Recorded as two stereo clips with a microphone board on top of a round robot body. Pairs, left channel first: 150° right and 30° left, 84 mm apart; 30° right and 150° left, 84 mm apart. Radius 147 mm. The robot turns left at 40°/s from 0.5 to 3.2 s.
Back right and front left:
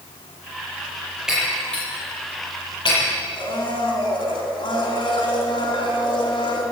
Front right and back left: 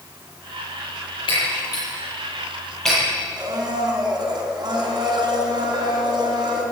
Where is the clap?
I don't hear a clap.